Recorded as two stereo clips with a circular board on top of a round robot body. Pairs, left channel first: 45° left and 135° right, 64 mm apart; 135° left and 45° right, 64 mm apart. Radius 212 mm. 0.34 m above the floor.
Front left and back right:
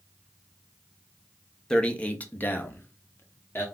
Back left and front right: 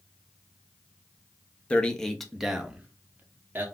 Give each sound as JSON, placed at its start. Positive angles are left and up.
{"t": 1.7, "sound": "a man speaking", "azimuth_deg": 100, "distance_m": 1.0}